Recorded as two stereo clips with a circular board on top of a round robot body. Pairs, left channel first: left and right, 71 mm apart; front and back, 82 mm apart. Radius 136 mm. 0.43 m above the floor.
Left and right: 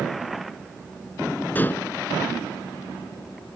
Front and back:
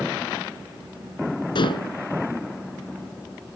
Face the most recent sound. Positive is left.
turn(degrees=25)